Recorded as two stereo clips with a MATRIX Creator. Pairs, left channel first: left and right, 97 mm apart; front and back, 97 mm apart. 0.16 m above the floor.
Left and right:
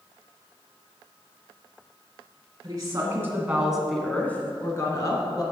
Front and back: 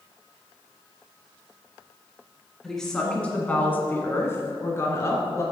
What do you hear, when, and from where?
2.6 s a woman speaking: 85° right, 1.6 m; by 5.4 s 55° left, 2 m